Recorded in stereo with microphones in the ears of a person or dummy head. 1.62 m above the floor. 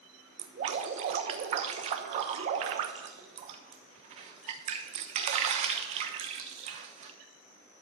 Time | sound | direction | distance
0.4 | dripping | 40° right (ahead or behind) | 1.0 m